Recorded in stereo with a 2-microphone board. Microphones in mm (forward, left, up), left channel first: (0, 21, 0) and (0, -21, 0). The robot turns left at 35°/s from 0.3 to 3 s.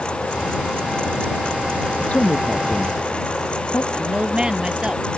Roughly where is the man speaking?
Left.